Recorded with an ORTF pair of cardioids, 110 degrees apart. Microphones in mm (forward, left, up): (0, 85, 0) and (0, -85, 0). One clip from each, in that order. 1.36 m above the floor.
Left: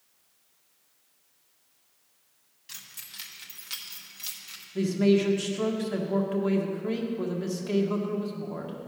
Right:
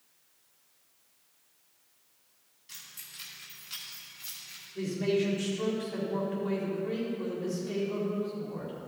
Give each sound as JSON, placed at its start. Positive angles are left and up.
{"t": 2.7, "sound": "keys jangling", "azimuth_deg": 35, "distance_m": 1.9}
{"t": 4.8, "sound": "a man speaking", "azimuth_deg": 55, "distance_m": 1.8}